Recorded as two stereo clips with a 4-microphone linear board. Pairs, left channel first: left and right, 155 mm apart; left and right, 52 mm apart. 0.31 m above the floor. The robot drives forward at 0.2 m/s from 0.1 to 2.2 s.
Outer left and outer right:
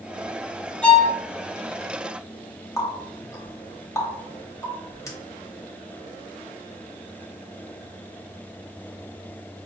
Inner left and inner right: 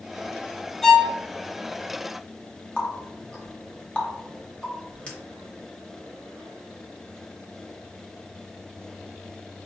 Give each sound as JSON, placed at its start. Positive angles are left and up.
{"t": 0.8, "sound": "a violin", "side_deg": 10, "distance_m": 0.6}
{"t": 2.8, "sound": "a running tap", "side_deg": 20, "distance_m": 0.9}